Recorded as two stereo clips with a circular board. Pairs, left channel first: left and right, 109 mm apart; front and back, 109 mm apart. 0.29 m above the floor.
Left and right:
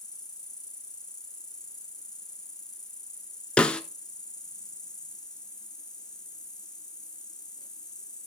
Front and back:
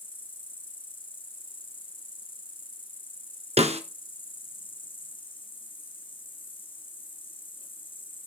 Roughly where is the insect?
Ahead left.